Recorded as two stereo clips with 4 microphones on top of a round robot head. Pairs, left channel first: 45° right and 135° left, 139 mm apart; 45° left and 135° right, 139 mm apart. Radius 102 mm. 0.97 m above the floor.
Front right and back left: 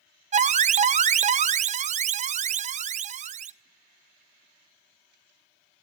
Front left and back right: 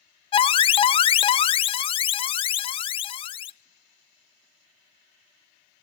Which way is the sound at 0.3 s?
95° left.